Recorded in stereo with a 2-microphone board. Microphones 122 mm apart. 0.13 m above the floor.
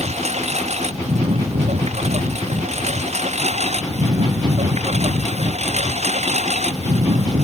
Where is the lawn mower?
65° right (ahead or behind); by 7.4 s 70° right (ahead or behind).